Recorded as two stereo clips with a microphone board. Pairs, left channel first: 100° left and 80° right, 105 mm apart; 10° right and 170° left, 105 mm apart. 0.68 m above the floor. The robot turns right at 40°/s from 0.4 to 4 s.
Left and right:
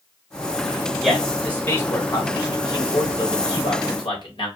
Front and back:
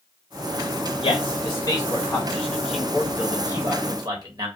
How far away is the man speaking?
About 1.5 m.